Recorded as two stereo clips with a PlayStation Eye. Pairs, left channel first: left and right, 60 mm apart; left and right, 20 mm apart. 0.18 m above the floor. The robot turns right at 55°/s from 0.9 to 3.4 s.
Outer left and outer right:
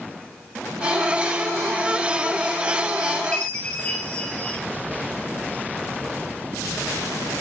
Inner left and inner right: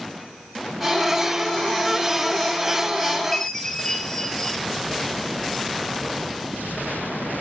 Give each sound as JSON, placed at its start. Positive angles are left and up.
{"t": 3.3, "sound": "a chime", "side_deg": 20, "distance_m": 0.8}